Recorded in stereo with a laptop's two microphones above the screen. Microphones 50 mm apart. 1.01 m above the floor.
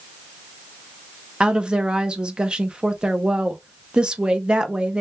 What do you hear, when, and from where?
1.4 s a woman speaking: 20° right (ahead or behind), 0.7 m